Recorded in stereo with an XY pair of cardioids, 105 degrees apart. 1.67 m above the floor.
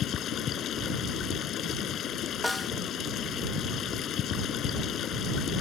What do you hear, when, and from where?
0.0 s running water: 65° left
2.4 s a snare drum: 10° left